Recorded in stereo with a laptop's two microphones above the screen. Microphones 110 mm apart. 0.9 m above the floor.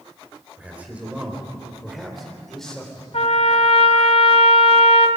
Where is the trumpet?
70° left (ahead or behind), 1.5 m.